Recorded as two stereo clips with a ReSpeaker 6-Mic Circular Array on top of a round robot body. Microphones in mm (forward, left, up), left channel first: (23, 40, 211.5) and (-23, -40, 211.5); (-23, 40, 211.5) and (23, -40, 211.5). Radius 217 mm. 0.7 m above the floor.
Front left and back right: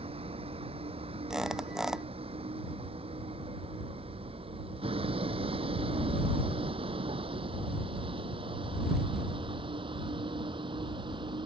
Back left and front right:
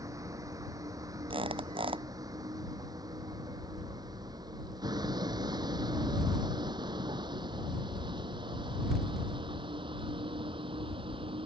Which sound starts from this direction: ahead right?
A squeak, at 1.3 s.